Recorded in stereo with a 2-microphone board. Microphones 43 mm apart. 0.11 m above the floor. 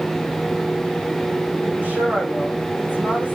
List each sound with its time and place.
1.6 s a woman speaking: 40° right (ahead or behind), 8 m